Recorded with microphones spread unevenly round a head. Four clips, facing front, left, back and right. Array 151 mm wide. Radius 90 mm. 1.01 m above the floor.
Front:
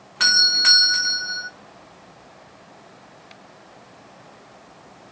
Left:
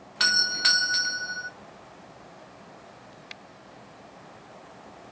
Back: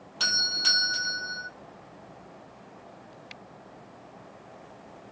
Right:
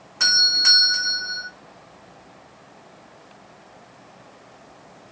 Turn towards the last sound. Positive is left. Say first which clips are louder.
# right 1 dB, front 9 dB
turn(degrees=20)